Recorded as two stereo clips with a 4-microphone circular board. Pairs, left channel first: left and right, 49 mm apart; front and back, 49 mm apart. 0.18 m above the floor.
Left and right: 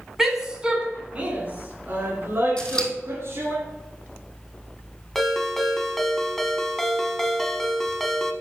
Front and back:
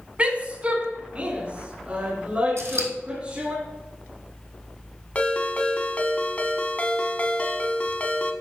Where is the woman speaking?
165° right, 1.3 m; by 3.6 s 115° right, 3 m.